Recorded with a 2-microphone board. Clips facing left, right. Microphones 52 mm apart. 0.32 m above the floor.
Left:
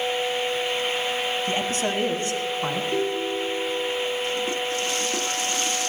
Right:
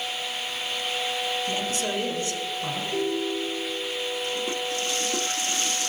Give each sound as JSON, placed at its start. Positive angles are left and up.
{"t": 1.5, "sound": "a man speaking", "side_deg": 35, "distance_m": 1.4}
{"t": 2.9, "sound": "a ringtone", "side_deg": 35, "distance_m": 6.5}